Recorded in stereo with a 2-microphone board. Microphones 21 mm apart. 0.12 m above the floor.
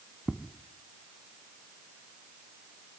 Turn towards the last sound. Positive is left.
turn(degrees=-60)  # may be behind; listen again after turning